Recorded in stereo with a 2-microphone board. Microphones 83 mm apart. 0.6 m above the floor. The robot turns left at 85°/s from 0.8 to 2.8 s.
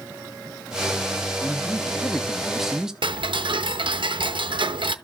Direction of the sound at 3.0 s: 85° right.